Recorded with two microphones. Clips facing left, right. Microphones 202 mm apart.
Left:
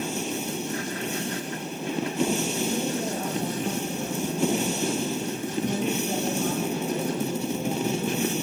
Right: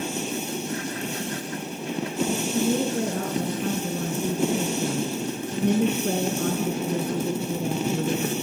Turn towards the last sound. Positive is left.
turn(degrees=-65)  # may be behind; listen again after turning